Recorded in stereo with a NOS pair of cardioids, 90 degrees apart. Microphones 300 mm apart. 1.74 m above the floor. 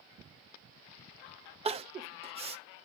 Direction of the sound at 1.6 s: 20° right.